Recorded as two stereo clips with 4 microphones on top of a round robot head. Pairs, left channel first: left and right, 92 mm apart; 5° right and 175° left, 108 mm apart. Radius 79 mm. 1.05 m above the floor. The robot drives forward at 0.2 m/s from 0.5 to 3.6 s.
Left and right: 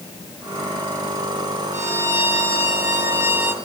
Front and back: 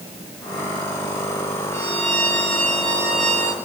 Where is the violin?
150° right, 2.5 m; by 3.5 s 155° right, 3 m.